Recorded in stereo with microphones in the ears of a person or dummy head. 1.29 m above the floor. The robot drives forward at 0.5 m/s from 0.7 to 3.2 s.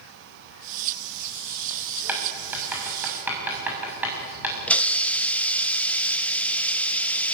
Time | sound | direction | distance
2.1 | writing | 10° right (ahead or behind) | 7 m
4.7 | a hiss | 10° left (ahead or behind) | 0.8 m